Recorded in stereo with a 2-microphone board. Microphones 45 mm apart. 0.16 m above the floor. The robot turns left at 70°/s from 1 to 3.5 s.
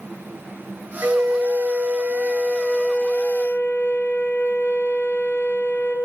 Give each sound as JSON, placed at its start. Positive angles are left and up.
{"t": 1.0, "sound": "a flute", "azimuth_deg": -70, "distance_m": 1.4}